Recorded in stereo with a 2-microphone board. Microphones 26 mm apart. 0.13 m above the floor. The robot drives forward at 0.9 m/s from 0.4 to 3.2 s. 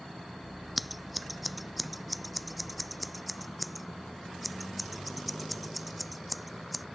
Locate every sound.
0.8 s scissors: centre (ahead or behind)